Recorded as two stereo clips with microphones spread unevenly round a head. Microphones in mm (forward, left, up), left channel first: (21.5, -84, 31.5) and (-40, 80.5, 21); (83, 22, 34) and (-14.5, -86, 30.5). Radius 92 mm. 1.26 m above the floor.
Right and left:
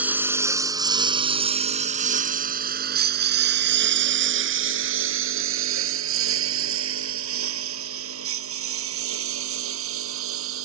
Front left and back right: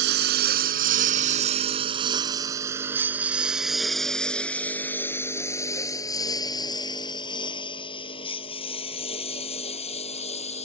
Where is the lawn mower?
165° right; by 10.7 s 105° left.